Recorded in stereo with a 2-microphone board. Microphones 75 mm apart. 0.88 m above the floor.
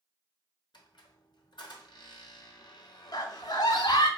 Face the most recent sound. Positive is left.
turn(degrees=60)  # may be behind; listen again after turning